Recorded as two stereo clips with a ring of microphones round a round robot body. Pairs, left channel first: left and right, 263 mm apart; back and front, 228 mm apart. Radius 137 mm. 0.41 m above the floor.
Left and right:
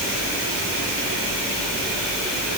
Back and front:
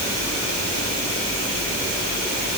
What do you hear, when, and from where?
Only background noise.